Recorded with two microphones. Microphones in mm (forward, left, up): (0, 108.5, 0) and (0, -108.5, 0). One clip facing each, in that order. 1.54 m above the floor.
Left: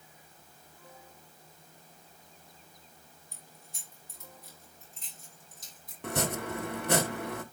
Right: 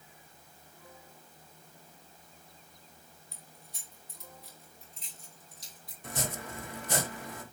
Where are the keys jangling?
50° left (ahead or behind), 4.5 m.